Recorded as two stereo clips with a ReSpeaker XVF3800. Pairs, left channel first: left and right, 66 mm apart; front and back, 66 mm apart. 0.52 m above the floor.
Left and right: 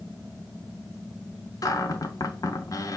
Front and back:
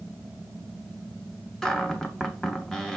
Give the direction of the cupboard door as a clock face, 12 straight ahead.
9 o'clock.